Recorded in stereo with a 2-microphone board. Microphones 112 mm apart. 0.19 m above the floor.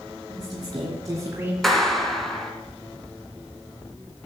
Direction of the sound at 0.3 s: 40° right (ahead or behind).